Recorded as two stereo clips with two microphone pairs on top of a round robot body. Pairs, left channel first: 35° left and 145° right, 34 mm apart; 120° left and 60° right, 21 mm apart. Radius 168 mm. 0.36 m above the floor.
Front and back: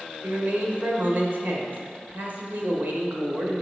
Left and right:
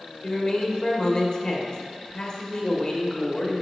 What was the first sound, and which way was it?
A man speaking, 175° right.